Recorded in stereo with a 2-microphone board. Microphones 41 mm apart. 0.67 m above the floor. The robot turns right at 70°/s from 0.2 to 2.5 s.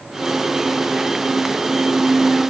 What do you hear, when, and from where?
Only background noise.